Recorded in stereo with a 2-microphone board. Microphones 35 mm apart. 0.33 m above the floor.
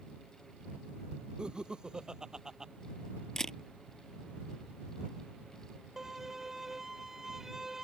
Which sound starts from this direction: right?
Laughter, at 1.4 s.